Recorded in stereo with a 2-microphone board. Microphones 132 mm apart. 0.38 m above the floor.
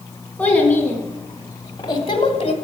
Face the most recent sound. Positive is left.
turn(degrees=50)  # may be behind; listen again after turning